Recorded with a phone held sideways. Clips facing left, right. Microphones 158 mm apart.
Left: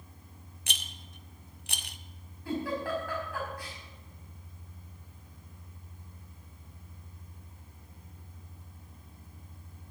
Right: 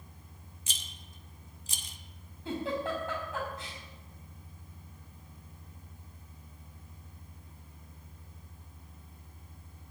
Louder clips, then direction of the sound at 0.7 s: Left 5 dB; 70° left (ahead or behind).